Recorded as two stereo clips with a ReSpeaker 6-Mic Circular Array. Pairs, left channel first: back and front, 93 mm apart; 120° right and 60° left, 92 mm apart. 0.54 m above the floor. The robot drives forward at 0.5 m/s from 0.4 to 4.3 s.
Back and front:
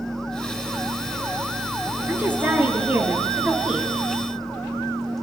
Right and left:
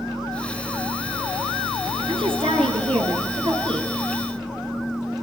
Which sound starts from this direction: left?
A woman speaking, at 2.1 s.